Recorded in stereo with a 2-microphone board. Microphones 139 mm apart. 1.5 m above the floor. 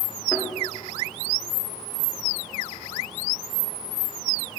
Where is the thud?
25° left (ahead or behind), 2 m.